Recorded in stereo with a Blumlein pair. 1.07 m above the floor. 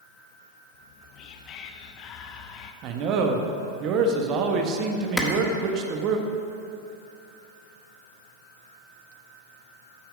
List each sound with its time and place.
0.7 s whispering: 35° left, 0.9 m
2.8 s a man speaking: 35° right, 1.2 m
5.2 s a clap: 5° left, 1.4 m